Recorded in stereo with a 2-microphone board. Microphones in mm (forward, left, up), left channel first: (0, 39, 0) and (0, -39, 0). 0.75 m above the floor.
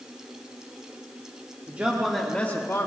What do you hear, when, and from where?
1.7 s a man speaking: 25° right (ahead or behind), 1.6 m; by 2.9 s 45° left (ahead or behind), 1.5 m